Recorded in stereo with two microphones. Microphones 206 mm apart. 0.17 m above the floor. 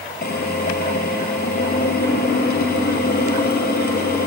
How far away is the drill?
About 4 m.